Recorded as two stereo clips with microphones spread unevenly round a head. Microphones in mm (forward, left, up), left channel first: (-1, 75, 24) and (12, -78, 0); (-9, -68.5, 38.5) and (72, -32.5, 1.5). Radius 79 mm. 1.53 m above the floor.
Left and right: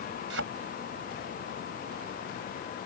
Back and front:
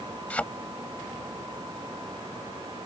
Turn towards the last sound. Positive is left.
turn(degrees=-95)